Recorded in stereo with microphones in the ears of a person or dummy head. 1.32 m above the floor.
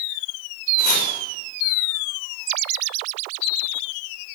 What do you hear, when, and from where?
0.8 s chopping: 55° left (ahead or behind), 6 m